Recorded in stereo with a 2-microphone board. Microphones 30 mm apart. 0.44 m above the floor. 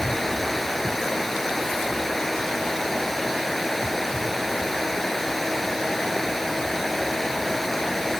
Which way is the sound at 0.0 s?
10° left (ahead or behind).